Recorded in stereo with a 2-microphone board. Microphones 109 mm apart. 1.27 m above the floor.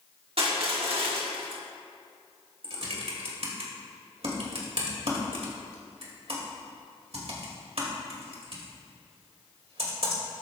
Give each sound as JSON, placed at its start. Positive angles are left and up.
{"t": 0.4, "sound": "crushing", "side_deg": -55, "distance_m": 1.6}
{"t": 2.6, "sound": "typing on a keyboard", "side_deg": -65, "distance_m": 2.5}